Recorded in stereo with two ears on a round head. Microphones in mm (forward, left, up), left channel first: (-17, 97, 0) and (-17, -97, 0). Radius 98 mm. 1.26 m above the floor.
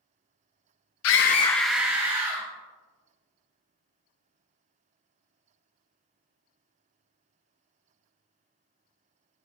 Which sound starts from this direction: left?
A scream, at 1.0 s.